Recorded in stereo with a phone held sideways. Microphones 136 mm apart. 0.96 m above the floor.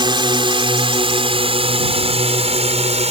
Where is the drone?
35° right (ahead or behind); by 3.1 s 50° right (ahead or behind).